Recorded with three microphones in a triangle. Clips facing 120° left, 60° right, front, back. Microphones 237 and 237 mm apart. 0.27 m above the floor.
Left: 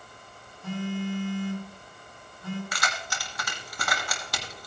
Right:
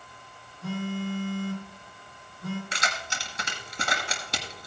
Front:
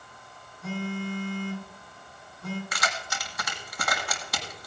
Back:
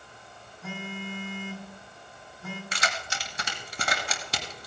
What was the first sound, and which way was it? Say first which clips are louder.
A phone buzzing: even, front 6 dB; 95° right.